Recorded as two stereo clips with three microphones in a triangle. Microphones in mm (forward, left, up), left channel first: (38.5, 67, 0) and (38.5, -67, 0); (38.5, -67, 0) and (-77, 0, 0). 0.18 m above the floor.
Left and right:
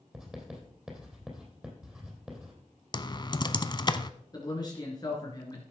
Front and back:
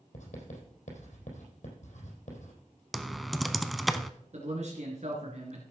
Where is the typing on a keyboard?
60° left, 0.6 m.